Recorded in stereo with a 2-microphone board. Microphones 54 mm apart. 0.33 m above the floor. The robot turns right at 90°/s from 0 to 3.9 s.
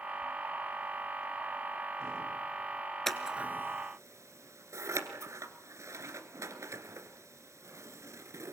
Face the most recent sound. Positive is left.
turn(degrees=-65)  # may be behind; listen again after turning